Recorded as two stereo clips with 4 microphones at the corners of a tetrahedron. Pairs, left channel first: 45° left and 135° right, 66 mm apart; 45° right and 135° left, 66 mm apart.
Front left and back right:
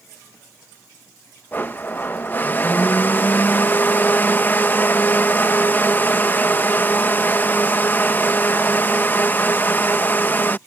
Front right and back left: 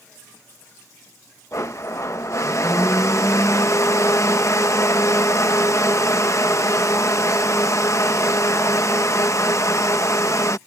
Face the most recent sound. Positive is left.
turn(degrees=-10)